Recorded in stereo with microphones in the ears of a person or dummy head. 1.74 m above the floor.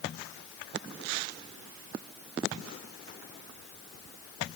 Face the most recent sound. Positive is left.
No sound to turn to.